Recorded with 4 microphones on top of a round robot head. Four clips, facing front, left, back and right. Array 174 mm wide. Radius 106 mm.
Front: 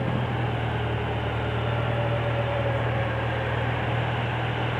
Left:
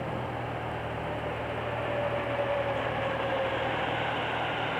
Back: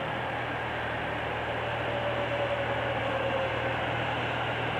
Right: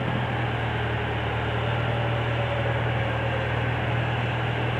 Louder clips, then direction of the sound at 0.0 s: Right 5 dB, front 4 dB; 40° right.